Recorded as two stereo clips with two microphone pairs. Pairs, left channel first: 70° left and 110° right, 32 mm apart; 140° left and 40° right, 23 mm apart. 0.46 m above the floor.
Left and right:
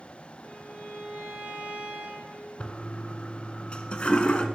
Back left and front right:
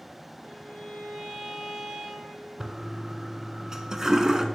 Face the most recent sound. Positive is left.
turn(degrees=25)